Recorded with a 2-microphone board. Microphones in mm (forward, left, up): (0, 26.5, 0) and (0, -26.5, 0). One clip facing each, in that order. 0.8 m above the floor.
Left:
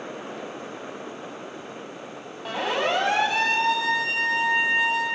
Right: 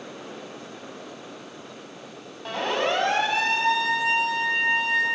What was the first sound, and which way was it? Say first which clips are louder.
A siren: even; 5° left (ahead or behind).